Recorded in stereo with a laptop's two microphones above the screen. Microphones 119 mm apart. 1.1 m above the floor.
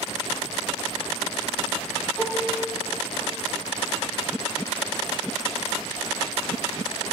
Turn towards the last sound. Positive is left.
turn(degrees=5)  # may be behind; listen again after turning